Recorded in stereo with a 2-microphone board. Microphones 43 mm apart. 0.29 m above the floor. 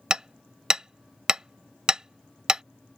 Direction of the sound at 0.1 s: 15° right (ahead or behind).